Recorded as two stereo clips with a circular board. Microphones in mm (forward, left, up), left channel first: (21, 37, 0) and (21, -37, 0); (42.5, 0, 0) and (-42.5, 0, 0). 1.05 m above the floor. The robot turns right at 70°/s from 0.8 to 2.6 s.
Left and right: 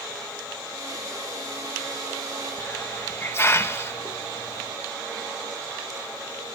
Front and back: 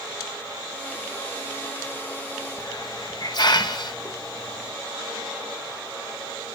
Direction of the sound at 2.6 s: 30° left.